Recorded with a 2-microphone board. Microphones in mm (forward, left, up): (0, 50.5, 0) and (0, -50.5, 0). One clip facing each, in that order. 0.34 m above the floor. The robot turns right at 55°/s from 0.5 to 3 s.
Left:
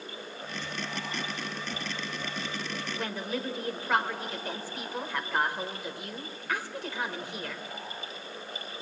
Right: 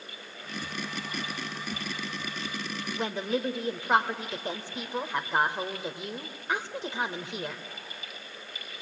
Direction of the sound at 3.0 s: 20° right (ahead or behind).